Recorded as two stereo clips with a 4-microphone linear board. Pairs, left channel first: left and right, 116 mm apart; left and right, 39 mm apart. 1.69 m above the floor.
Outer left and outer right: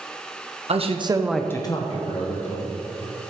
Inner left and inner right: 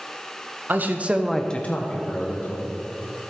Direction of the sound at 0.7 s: 60° right (ahead or behind).